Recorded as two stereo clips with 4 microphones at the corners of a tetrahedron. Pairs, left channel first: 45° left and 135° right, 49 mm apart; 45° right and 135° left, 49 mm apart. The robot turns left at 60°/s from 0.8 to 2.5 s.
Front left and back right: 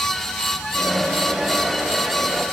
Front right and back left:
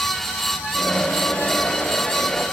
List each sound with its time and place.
Only background noise.